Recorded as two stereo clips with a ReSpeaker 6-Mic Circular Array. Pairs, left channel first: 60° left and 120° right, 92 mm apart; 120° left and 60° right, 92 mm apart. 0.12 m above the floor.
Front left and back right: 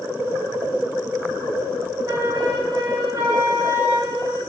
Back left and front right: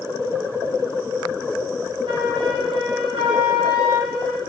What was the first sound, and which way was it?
A flute, 75° right.